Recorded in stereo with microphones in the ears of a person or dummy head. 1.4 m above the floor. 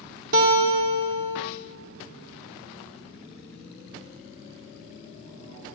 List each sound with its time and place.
0.3 s a guitar: 55° right (ahead or behind), 1.6 m